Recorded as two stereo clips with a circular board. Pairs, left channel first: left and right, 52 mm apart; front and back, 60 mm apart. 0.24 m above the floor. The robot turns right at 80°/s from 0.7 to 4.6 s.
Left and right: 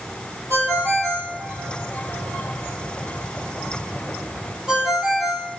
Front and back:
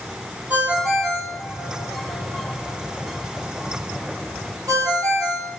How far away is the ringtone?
About 3 m.